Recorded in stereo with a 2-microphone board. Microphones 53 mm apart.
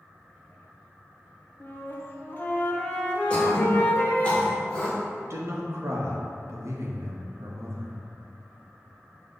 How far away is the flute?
About 0.6 m.